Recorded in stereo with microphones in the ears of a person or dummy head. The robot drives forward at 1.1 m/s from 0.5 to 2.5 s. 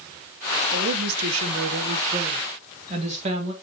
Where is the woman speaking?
60° right (ahead or behind), 1.2 m; by 3.5 s 35° right (ahead or behind), 1.8 m.